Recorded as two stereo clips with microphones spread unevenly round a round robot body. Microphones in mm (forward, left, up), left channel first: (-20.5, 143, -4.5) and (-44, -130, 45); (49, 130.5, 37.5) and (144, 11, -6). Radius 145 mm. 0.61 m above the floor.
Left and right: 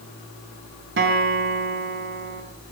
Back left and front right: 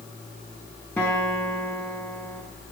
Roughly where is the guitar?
Behind right.